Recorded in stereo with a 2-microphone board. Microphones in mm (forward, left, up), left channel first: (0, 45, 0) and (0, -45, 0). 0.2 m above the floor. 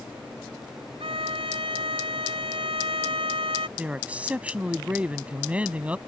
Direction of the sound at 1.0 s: 85° right.